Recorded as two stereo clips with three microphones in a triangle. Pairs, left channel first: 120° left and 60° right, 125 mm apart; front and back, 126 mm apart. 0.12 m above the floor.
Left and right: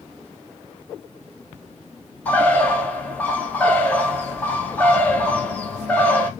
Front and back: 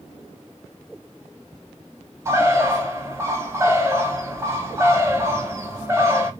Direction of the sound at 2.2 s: 170° left.